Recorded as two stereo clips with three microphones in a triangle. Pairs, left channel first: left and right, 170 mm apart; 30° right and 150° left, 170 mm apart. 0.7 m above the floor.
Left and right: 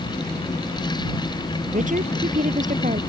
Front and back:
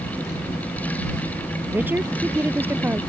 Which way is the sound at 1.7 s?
130° right.